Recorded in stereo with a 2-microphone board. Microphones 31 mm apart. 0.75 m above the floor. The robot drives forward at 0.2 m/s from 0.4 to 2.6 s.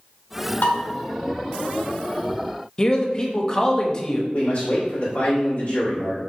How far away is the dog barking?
No dog barking in this recording.